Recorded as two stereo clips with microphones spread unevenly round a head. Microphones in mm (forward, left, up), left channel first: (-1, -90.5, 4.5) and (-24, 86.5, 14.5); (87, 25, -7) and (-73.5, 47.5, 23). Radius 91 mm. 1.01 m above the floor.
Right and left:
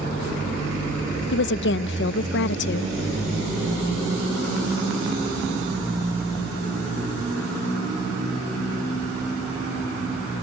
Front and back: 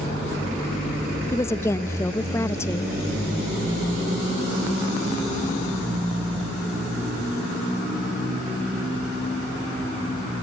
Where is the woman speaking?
80° right.